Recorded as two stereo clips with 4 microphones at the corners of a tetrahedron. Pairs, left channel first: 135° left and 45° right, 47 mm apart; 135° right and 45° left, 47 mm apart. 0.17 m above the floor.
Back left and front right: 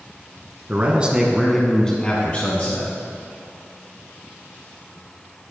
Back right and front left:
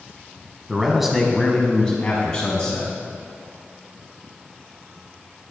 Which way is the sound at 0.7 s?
30° right.